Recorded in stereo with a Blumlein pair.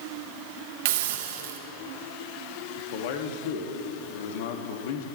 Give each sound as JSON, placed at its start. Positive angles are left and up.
{"t": 0.8, "sound": "a hiss", "azimuth_deg": -50, "distance_m": 1.5}
{"t": 2.8, "sound": "a man speaking", "azimuth_deg": 50, "distance_m": 1.7}